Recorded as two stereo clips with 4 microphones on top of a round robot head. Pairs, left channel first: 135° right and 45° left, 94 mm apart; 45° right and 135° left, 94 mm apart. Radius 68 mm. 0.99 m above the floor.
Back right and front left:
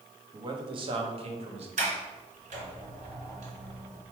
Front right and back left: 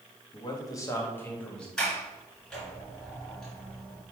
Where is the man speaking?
Straight ahead, 1.4 m; by 1.7 s 40° left, 1.7 m.